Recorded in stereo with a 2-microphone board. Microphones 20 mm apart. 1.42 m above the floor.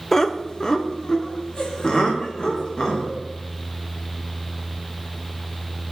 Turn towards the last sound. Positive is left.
turn(degrees=50)  # may be behind; listen again after turning